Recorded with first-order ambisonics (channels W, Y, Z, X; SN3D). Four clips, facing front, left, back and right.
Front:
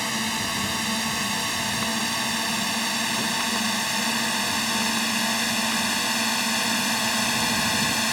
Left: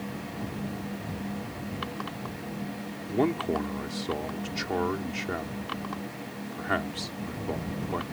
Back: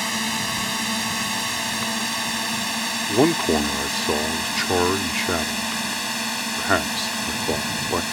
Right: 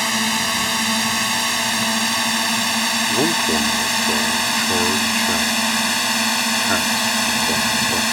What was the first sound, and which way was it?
A drone, 95° right.